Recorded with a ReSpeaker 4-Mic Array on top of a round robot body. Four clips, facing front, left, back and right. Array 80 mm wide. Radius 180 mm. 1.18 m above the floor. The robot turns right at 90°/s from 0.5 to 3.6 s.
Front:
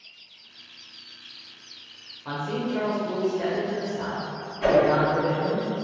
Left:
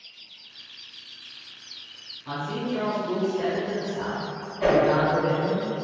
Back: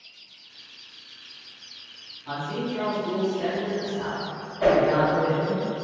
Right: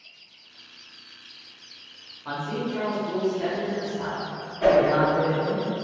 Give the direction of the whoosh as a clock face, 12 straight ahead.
6 o'clock.